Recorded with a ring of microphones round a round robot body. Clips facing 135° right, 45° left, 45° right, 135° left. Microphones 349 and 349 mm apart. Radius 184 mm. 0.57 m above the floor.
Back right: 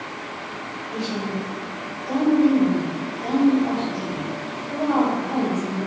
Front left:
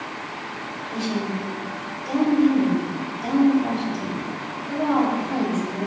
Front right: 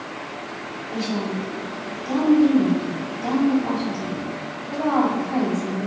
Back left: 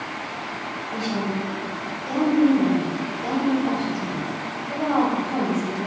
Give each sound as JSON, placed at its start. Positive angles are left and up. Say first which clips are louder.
{"t": 0.9, "sound": "a woman speaking", "louder": "front left 1 dB, front right 1 dB", "azimuth_deg": 5, "distance_m": 3.5}